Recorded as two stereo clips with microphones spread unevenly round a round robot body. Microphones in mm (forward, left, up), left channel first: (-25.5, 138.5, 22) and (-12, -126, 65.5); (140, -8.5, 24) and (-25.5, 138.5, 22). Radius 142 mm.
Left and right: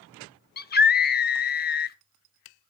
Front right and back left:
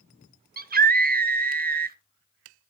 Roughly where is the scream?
Behind left.